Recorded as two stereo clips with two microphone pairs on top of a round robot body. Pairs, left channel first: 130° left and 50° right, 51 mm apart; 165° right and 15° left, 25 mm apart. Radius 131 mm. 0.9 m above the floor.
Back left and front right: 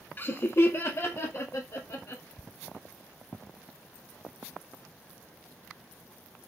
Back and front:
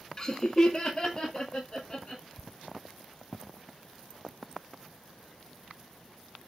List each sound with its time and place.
0.2 s laughter: 140° left, 0.7 m; by 2.2 s 120° left, 1.9 m